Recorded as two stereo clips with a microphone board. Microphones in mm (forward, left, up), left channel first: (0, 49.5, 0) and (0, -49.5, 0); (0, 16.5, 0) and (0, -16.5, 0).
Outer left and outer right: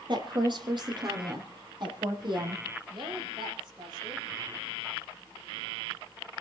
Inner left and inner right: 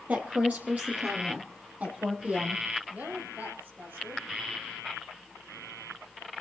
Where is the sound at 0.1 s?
50° right (ahead or behind), 4.5 m.